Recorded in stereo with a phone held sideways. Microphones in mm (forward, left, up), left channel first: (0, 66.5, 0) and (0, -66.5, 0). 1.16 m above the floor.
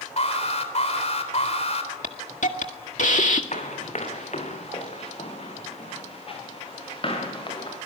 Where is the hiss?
65° left (ahead or behind), 1.9 m.